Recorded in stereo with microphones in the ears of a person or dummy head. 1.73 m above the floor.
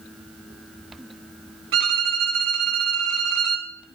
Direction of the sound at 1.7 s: 65° right (ahead or behind).